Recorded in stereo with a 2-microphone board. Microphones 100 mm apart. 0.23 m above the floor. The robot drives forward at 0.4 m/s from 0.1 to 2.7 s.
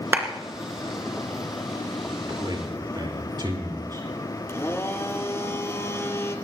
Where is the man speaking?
50° right (ahead or behind), 4 m.